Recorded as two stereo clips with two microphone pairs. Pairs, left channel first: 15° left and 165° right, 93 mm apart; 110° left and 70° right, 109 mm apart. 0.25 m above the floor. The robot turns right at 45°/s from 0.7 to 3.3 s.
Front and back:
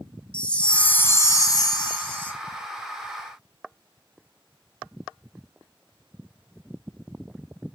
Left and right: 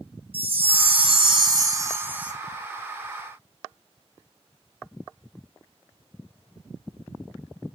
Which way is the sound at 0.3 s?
65° right.